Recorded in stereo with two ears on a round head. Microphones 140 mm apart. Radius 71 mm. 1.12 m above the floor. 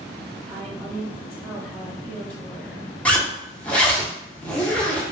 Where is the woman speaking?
10° left (ahead or behind), 1.7 m.